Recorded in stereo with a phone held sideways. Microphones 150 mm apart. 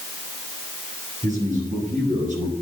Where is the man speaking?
55° right (ahead or behind), 8.5 m; by 2.5 s 60° right (ahead or behind), 8.5 m.